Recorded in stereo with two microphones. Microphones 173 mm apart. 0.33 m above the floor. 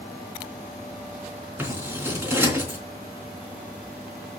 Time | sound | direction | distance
1.6 | scissors | 10° right (ahead or behind) | 3.5 m